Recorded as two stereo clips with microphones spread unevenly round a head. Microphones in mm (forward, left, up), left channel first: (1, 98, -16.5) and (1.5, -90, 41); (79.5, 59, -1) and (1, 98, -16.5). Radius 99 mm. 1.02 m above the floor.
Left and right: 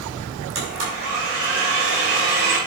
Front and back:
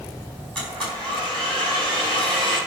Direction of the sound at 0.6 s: 110° right.